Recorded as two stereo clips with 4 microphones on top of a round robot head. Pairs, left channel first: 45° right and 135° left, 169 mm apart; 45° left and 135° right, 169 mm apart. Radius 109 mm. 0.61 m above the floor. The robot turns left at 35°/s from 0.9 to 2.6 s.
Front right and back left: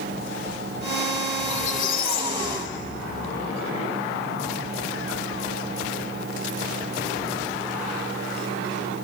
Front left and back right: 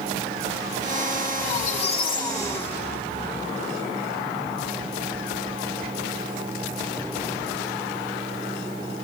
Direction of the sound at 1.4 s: 10° left.